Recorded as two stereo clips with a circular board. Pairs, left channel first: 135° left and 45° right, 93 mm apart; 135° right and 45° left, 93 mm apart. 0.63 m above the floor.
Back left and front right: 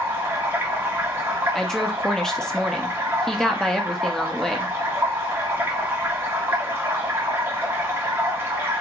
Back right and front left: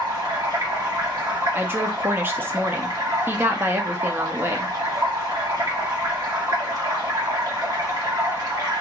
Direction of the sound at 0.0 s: 15° left.